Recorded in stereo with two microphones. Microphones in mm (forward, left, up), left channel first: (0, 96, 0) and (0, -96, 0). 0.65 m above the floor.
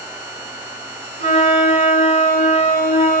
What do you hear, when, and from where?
1.2 s a flute: 40° left (ahead or behind), 8.5 m